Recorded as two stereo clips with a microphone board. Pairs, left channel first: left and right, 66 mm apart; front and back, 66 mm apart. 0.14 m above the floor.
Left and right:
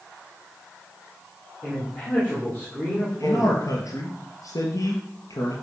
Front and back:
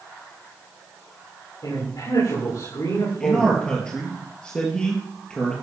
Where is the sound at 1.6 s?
35° left, 9 m.